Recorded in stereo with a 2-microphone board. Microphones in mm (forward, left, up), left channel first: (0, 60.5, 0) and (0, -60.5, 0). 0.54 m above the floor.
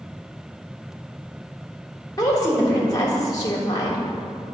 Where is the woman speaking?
30° left (ahead or behind), 1.6 m.